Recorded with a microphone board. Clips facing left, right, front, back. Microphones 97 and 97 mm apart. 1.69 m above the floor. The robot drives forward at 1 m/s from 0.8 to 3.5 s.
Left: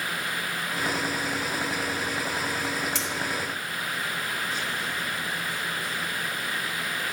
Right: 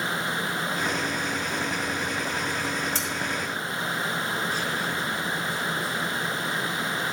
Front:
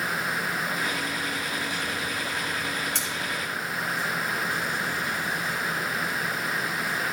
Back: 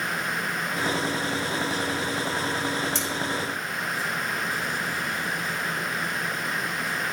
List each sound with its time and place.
3.0 s cutlery clinking: 40° right, 3.5 m